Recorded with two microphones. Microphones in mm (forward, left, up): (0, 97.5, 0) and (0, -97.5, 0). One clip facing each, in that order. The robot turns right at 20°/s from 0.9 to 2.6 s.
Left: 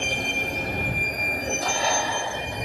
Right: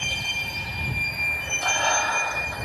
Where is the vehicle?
125° left; by 2.7 s 160° left.